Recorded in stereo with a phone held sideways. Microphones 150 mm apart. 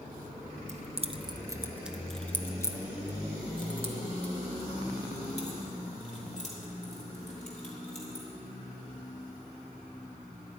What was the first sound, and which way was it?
Keys jangling, 50° right (ahead or behind).